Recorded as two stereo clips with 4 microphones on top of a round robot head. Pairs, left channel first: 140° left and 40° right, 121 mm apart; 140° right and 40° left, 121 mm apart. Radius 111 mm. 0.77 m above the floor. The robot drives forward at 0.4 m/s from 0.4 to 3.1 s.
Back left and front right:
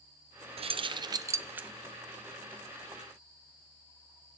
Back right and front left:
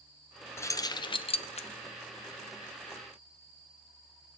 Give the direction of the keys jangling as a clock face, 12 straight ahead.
2 o'clock.